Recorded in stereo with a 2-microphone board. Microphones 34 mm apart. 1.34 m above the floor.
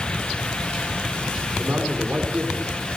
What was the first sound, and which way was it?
A man speaking, 80° right.